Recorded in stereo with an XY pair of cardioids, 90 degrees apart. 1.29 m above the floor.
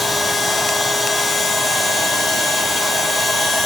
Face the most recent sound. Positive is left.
turn(degrees=30)